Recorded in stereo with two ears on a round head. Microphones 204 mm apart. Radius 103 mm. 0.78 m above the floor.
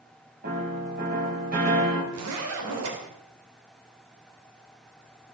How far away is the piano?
About 4.5 m.